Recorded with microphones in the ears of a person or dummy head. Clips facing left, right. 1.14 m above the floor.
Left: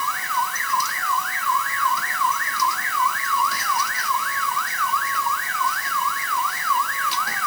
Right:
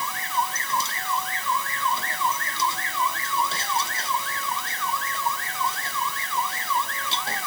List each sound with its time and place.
Only background noise.